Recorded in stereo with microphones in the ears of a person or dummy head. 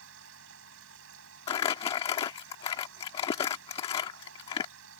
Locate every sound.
0.0 s a machine running: 90° right
1.5 s crumpling: 25° left (ahead or behind)